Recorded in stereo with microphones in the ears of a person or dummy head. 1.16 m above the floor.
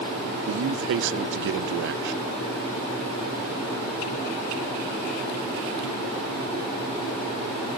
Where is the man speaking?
70° right (ahead or behind), 0.7 m.